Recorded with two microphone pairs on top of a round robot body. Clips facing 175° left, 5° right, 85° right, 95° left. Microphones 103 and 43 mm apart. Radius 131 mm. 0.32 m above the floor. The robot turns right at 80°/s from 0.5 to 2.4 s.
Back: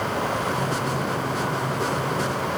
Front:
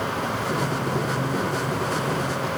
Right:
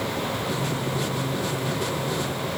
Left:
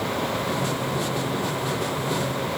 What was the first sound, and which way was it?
Only background noise.